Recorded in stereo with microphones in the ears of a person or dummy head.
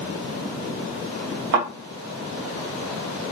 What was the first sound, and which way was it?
A thud, 50° right (ahead or behind).